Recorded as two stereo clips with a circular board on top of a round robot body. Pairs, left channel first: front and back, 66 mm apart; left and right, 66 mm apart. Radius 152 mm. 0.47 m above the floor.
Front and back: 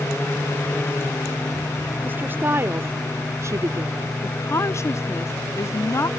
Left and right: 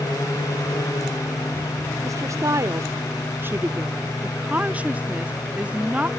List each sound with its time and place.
2.0 s a woman speaking: 120° right; by 4.1 s 155° right
4.2 s a woman speaking: 25° right